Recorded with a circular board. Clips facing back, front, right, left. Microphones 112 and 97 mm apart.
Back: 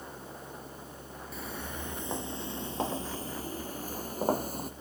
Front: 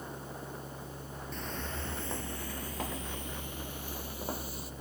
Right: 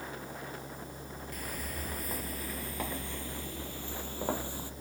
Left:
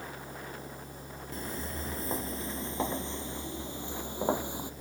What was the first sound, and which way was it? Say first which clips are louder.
Footsteps: back 1 dB, left 4 dB; 105° left.